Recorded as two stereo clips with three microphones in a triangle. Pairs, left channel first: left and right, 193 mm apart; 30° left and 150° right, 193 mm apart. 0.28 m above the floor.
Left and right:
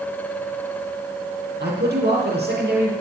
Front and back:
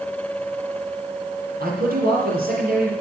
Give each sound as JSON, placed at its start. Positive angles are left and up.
{"t": 1.6, "sound": "a man speaking", "azimuth_deg": -115, "distance_m": 5.5}